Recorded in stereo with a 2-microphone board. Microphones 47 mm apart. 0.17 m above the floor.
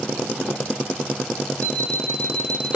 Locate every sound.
1.6 s an alarm clock: 35° left (ahead or behind), 2.5 m